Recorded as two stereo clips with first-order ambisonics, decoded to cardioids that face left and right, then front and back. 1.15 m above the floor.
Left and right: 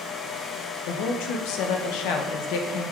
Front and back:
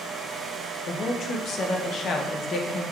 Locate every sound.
0.9 s a woman speaking: 60° left, 0.6 m